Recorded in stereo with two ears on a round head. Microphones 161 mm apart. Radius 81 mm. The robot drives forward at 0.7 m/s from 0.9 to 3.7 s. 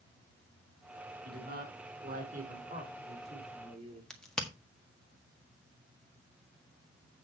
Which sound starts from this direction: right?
A man speaking, at 1.2 s.